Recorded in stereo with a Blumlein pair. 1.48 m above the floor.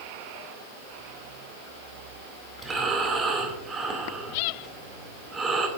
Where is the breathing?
15° right, 2 m.